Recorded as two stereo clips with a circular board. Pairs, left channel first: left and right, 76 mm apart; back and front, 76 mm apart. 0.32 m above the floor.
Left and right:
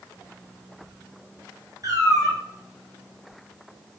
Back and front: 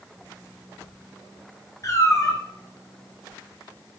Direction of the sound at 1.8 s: 135° right.